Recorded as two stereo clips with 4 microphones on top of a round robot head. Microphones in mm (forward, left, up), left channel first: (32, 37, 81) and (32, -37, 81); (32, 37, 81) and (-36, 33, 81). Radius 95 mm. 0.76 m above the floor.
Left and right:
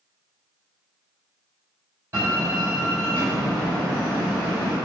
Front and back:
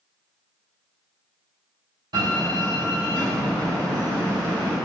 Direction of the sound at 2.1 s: 155° right.